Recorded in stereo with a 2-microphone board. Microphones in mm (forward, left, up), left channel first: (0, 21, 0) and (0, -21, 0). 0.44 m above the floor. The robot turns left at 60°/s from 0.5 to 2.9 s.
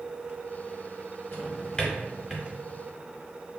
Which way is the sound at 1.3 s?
45° left (ahead or behind).